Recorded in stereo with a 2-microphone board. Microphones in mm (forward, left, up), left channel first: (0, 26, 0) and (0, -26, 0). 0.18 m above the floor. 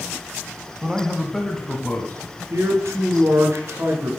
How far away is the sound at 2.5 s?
About 2 m.